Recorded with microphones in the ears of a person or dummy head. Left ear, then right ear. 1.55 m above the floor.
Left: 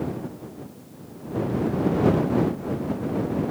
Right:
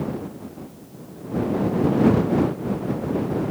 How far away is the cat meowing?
No cat meowing in this recording.